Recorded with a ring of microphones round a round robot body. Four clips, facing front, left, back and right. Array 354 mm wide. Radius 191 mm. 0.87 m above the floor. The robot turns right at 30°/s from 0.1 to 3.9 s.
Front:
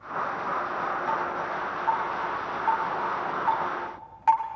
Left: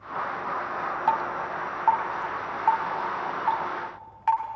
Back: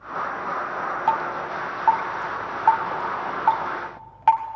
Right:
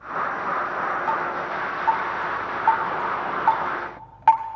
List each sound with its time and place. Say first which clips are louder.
1.1 s dripping: right 1 dB, back 4 dB; 145° left, 1.2 m; by 4.4 s 130° right, 1.2 m